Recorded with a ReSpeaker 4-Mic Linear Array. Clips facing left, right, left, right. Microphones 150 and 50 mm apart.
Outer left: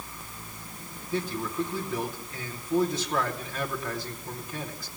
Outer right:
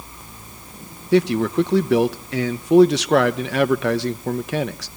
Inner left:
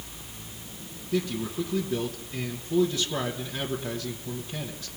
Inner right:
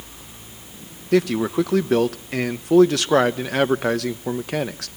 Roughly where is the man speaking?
Right.